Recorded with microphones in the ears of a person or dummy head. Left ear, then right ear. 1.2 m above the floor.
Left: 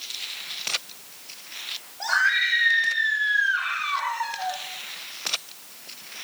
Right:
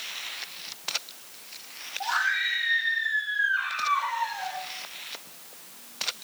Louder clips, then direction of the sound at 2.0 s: Left 5 dB; 25° left (ahead or behind).